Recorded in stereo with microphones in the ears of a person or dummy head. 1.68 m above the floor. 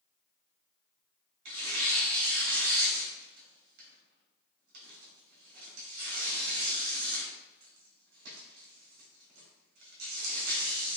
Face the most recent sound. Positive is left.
turn(degrees=-65)  # may be behind; listen again after turning